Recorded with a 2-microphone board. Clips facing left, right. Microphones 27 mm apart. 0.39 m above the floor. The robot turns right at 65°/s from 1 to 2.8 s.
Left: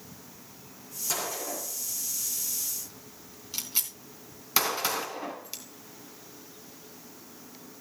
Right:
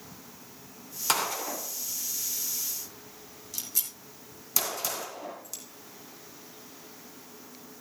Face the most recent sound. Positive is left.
turn(degrees=40)  # may be behind; listen again after turning